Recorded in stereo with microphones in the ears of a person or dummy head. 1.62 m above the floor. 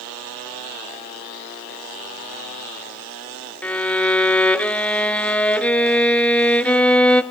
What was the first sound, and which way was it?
A violin, 10° left (ahead or behind).